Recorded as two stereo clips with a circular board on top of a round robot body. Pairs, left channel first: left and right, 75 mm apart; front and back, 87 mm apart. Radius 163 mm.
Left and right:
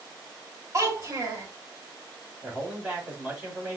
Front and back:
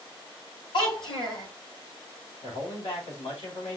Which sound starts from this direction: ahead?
A man speaking, at 2.4 s.